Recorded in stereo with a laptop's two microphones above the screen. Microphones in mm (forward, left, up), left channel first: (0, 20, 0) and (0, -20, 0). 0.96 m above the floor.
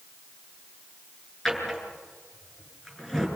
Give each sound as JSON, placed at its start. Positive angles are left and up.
{"t": 1.4, "sound": "a drawer", "side_deg": 10, "distance_m": 8.0}